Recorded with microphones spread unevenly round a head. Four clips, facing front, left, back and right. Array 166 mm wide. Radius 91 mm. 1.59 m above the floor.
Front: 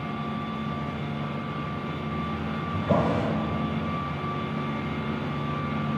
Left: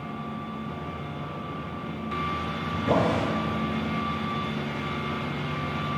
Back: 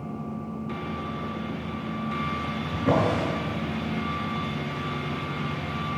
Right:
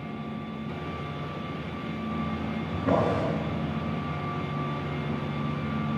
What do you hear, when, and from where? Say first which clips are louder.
2.7 s a drawer: left 1 dB, back 1 dB; 165° right, 6.5 m